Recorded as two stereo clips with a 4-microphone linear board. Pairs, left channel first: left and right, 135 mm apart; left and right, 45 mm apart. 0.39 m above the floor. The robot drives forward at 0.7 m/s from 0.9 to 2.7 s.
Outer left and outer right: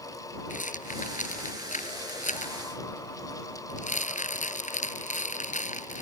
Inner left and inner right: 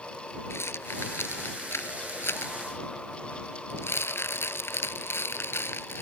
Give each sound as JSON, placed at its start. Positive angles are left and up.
{"t": 0.5, "sound": "a rattle", "side_deg": 80}